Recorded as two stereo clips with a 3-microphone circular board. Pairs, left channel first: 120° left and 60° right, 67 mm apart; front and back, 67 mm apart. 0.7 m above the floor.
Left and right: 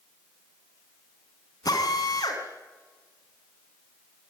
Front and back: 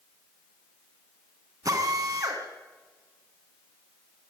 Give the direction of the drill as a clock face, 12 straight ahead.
7 o'clock.